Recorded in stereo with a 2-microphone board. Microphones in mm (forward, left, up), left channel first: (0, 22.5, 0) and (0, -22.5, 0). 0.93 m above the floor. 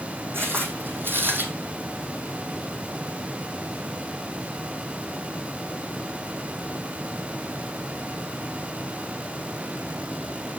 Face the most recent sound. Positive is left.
turn(degrees=-50)  # may be behind; listen again after turning